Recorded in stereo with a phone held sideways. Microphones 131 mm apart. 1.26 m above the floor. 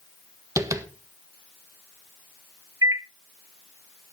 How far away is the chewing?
I don't hear chewing.